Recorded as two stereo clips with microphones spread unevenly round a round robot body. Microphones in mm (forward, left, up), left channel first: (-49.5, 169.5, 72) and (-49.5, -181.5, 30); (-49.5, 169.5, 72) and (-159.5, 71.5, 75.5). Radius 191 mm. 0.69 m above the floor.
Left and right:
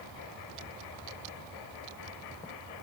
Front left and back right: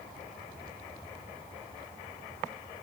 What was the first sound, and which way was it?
Only background noise.